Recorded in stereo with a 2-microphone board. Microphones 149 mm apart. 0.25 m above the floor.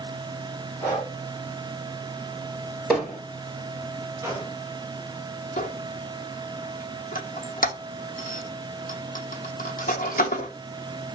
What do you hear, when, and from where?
0.8 s breathing: 10° right (ahead or behind), 2 m
2.9 s hammering: centre (ahead or behind), 3 m
4.2 s a gunshot: 20° right (ahead or behind), 1.9 m
5.6 s a squeak: 75° left (ahead or behind), 0.8 m